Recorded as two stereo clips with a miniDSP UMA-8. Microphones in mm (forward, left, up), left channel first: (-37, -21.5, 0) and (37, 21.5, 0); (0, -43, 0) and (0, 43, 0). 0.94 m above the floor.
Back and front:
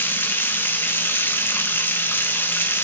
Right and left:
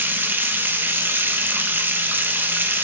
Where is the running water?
150° left, 0.8 m.